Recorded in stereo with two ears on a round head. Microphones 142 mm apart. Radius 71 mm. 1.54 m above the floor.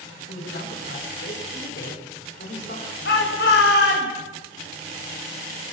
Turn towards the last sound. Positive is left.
turn(degrees=75)  # may be behind; listen again after turning